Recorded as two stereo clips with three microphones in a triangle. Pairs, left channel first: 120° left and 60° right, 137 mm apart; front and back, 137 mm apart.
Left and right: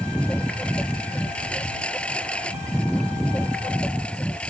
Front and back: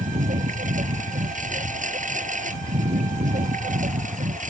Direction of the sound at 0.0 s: 160° right.